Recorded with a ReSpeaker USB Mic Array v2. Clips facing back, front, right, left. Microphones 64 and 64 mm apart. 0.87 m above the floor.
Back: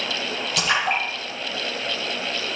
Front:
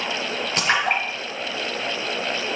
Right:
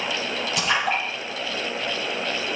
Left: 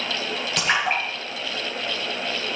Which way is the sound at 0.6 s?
50° left.